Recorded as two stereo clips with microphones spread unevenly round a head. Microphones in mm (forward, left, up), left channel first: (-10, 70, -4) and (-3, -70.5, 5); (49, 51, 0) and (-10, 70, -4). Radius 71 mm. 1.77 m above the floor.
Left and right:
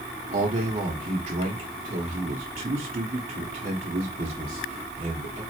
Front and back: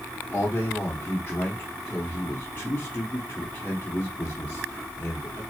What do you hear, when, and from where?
0.3 s a man speaking: 70° right, 0.9 m